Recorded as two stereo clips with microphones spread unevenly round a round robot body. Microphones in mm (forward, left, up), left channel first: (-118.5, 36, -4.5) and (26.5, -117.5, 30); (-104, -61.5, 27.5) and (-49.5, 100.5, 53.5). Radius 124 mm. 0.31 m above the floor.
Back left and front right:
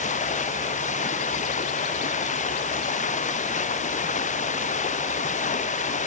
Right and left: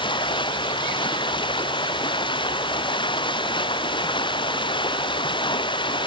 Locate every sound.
0.0 s running water: 170° right